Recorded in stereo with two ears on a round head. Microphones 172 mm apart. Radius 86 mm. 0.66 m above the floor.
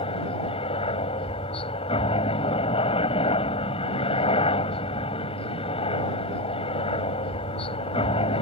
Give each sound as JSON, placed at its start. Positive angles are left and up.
{"t": 0.0, "sound": "a helicopter", "side_deg": 30}